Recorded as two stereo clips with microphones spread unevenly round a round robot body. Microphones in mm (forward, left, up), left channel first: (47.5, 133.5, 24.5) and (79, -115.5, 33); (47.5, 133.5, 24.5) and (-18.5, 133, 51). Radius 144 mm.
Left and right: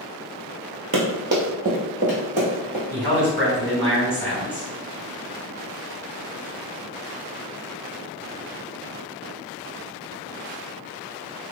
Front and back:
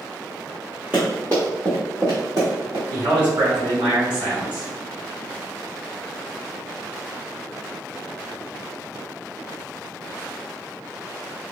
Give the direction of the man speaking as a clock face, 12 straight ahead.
6 o'clock.